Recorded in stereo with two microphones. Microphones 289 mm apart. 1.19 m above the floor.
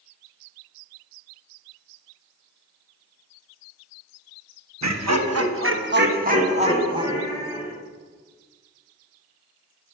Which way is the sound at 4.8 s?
80° right.